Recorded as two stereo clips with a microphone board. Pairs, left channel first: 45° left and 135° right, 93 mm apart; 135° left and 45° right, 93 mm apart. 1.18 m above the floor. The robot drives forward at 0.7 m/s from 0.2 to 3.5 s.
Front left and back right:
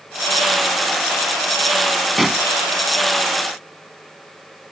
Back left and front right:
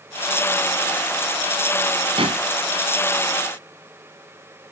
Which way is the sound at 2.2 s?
45° right.